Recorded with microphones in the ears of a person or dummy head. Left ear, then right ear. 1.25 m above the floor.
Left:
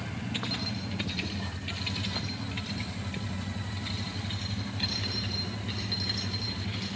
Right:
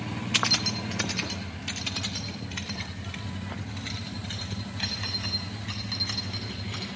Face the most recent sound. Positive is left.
turn(degrees=-35)  # may be behind; listen again after turning